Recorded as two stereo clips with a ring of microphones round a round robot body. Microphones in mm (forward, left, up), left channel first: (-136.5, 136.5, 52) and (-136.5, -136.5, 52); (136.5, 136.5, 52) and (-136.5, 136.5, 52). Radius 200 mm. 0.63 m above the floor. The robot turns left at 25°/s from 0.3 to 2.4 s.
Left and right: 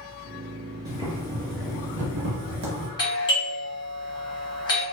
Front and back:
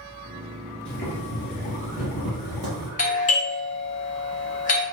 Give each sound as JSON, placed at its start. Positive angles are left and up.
{"t": 0.8, "sound": "boiling", "azimuth_deg": -50, "distance_m": 0.8}
{"t": 3.0, "sound": "a doorbell", "azimuth_deg": 30, "distance_m": 1.1}